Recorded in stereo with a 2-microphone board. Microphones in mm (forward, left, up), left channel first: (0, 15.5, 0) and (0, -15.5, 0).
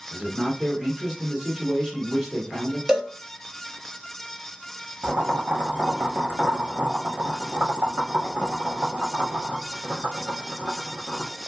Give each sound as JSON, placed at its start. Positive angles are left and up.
{"t": 0.1, "sound": "a man speaking", "side_deg": -5, "distance_m": 2.0}
{"t": 2.9, "sound": "a cowbell", "side_deg": -15, "distance_m": 0.7}
{"t": 5.0, "sound": "boiling", "side_deg": -55, "distance_m": 1.0}